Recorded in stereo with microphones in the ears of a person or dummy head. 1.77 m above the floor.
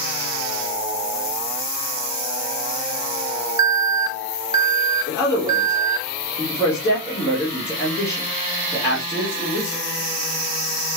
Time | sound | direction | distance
3.6 | an alarm | 30° right (ahead or behind) | 0.9 m
5.1 | a man speaking | 20° left (ahead or behind) | 2.5 m